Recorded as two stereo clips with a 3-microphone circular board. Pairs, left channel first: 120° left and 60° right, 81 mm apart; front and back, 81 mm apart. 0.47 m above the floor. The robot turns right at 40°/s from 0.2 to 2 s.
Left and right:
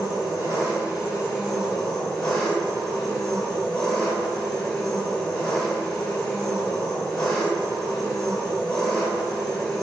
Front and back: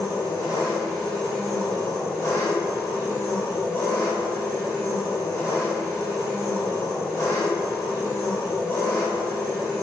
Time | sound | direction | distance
0.0 | an engine running | 25° right | 1.5 m